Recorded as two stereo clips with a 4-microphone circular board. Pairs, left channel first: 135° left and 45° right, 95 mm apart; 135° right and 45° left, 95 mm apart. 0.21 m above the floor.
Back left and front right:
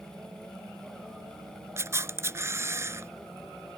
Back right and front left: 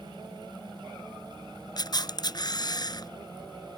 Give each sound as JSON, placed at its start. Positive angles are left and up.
{"t": 1.8, "sound": "a camera shutter", "azimuth_deg": -100}